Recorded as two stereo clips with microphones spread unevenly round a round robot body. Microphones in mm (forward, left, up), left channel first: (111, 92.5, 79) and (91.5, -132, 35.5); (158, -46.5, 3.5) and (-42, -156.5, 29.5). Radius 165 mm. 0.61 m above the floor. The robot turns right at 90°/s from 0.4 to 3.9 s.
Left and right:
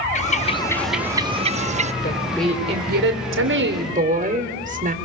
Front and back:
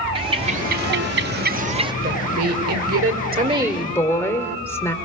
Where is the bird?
145° left, 1.0 m; by 1.9 s 80° right, 1.0 m.